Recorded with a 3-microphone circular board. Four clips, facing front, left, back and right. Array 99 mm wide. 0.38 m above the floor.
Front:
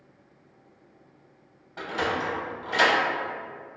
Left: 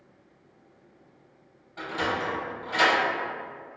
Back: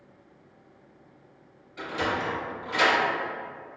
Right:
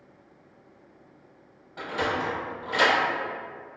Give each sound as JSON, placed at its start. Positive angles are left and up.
{"t": 1.8, "sound": "a sliding door", "azimuth_deg": -15, "distance_m": 0.8}